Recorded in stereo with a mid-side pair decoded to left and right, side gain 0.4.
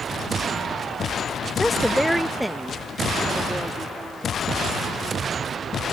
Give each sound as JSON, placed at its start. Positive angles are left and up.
{"t": 1.6, "sound": "a woman speaking", "azimuth_deg": 10}